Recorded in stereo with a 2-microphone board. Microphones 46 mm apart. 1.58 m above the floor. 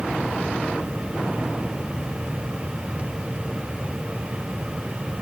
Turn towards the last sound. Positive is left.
No sound to turn to.